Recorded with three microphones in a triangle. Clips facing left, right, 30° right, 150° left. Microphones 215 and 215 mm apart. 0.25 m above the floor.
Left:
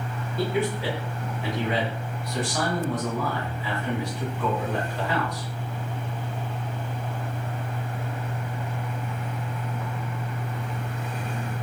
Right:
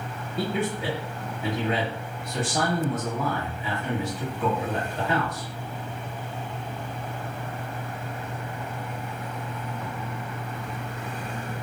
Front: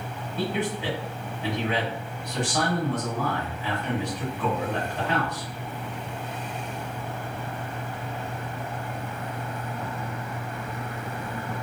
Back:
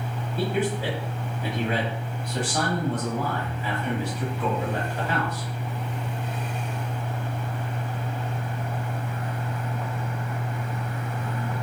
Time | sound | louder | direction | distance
0.4 | a man speaking | left 2 dB, back 2 dB | 130° right | 1.1 m